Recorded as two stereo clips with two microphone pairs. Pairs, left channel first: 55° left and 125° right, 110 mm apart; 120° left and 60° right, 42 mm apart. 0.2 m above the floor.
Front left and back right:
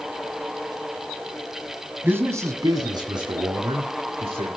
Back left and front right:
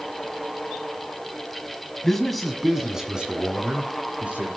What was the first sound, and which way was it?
A man speaking, 170° right.